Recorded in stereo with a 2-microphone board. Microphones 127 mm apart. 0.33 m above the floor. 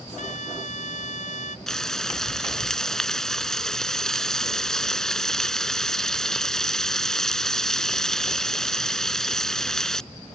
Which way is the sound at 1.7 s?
5° left (ahead or behind).